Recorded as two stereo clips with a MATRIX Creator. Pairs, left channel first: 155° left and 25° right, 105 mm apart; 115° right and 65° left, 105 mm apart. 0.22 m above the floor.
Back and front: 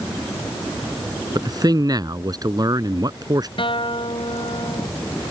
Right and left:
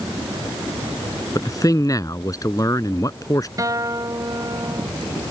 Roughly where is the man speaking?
Ahead right.